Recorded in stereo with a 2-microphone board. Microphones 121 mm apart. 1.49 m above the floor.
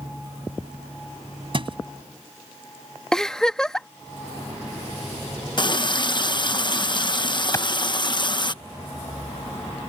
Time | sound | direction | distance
1.5 | a thud | 45° right (ahead or behind) | ?
3.1 | a giggle | 5° left (ahead or behind) | ?
5.6 | a running tap | 40° left (ahead or behind) | ?
7.5 | a clap | 25° left (ahead or behind) | ?